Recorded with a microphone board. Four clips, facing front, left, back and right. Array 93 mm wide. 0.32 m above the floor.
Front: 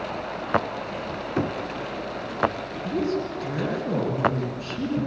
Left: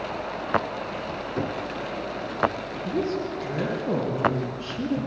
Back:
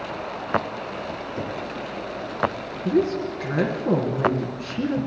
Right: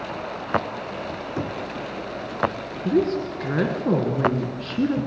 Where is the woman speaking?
115° right, 4.5 m.